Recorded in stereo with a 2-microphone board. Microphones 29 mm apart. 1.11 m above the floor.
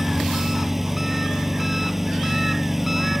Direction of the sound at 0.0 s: 10° right (ahead or behind).